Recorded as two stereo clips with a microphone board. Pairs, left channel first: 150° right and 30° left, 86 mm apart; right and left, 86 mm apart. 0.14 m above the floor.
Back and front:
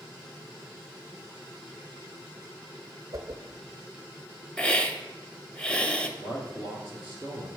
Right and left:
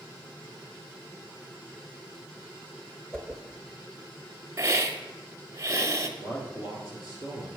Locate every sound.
3.1 s a whoosh: 10° right, 0.6 m
4.6 s a hiss: 135° left, 0.6 m
6.2 s a man speaking: 90° right, 1.8 m